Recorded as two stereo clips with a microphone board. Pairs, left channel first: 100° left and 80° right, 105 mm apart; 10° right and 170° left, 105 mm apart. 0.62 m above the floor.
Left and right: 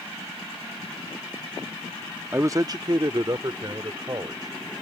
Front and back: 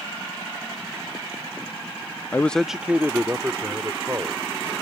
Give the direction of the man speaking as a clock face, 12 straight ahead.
2 o'clock.